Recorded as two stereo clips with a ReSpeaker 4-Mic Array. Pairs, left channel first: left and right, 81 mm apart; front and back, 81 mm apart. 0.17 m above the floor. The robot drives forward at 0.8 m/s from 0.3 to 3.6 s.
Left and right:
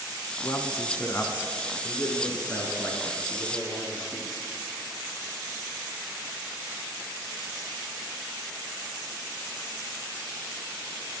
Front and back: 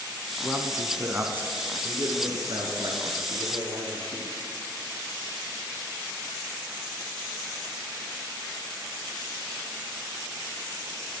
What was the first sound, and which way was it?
A man speaking, 75° left.